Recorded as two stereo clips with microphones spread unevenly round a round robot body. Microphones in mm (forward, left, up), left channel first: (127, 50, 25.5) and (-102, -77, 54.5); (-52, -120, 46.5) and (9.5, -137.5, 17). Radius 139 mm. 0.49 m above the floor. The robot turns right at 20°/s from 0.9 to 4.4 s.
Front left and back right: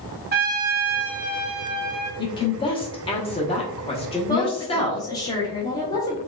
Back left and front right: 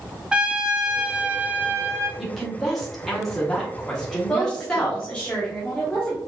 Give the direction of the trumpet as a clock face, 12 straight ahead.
3 o'clock.